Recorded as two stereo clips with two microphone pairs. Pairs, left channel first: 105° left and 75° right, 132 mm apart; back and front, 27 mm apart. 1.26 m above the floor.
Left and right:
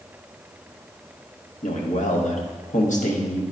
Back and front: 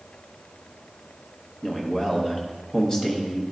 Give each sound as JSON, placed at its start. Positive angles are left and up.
{"t": 1.6, "sound": "a man speaking", "azimuth_deg": 110, "distance_m": 1.3}